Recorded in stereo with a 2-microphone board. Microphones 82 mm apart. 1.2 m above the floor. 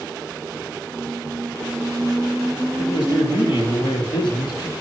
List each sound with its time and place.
0.9 s a squeak: 5° right (ahead or behind), 3.5 m
2.8 s a man speaking: 70° left (ahead or behind), 3 m